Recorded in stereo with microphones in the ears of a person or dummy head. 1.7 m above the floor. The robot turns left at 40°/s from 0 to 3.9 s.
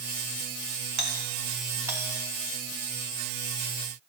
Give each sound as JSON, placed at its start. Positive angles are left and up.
{"t": 1.0, "sound": "a doorbell", "side_deg": -45, "distance_m": 1.3}